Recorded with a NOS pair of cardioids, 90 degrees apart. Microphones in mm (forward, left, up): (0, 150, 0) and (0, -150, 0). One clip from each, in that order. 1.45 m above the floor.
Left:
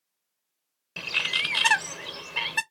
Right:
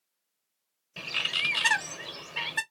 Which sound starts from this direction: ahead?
A bird, at 1.0 s.